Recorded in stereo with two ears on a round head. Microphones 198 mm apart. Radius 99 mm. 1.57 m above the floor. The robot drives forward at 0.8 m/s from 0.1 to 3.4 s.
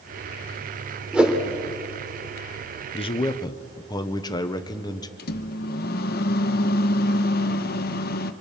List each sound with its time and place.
1.1 s a whoosh: 5° right (ahead or behind), 2 m
2.9 s a man speaking: 30° left (ahead or behind), 0.8 m; by 5.1 s 20° left (ahead or behind), 1.1 m
5.2 s a microwave: 50° left (ahead or behind), 0.9 m